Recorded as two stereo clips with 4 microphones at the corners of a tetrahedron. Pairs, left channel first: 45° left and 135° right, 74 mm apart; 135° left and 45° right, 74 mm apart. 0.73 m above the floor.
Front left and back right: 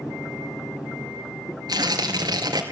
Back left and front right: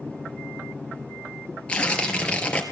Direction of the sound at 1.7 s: 150° right.